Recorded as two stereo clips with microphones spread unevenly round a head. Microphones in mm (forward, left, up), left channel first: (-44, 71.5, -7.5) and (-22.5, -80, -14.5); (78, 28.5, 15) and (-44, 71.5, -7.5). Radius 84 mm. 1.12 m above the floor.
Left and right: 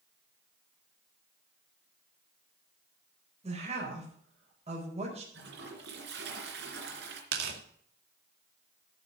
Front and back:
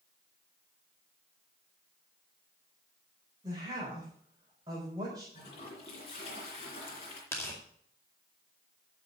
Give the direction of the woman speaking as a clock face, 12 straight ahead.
4 o'clock.